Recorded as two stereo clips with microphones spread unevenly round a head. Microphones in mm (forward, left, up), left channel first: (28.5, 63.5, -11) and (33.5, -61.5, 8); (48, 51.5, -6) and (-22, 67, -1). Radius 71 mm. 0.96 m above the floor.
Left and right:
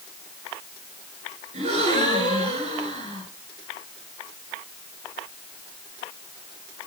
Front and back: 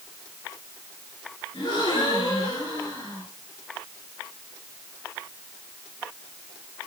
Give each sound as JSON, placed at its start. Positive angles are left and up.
{"t": 1.5, "sound": "a gasp", "azimuth_deg": -50, "distance_m": 4.0}